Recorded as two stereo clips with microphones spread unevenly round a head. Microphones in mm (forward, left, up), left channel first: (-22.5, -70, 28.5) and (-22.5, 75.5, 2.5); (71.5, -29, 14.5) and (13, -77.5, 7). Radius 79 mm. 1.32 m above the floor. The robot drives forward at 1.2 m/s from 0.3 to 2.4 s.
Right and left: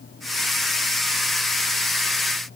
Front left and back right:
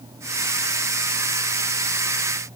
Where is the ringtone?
I don't hear a ringtone.